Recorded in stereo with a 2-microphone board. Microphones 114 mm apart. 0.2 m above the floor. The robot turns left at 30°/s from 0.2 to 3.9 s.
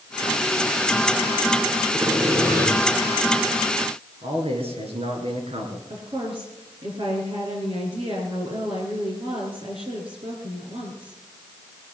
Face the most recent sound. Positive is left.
turn(degrees=-55)  # may be behind; listen again after turning